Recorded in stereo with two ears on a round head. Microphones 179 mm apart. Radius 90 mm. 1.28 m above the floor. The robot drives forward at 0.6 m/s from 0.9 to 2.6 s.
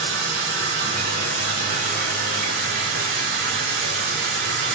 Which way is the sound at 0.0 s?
30° right (ahead or behind).